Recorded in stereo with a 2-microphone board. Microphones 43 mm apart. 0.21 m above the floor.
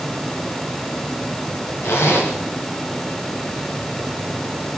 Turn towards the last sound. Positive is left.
turn(degrees=90)